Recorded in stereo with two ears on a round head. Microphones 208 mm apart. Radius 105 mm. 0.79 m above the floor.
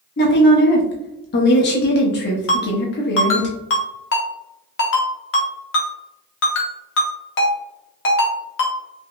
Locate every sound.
0.2 s a woman speaking: 45° left (ahead or behind), 0.7 m
2.5 s a ringtone: 55° left (ahead or behind), 0.9 m